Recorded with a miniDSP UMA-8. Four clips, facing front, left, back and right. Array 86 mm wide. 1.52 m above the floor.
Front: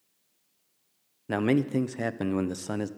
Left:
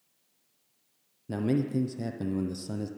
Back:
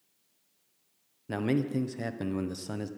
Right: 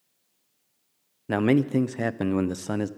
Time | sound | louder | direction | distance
1.3 | a man speaking | right 7 dB, front 4 dB | 65° right | 0.6 m